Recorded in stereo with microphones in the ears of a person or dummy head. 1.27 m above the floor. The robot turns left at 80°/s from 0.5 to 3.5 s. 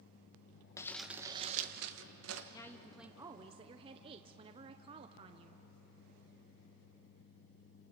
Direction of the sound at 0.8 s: 20° left.